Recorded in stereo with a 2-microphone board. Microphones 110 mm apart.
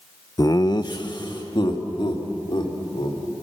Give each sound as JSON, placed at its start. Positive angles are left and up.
{"t": 0.4, "sound": "laughter", "side_deg": 30, "distance_m": 0.7}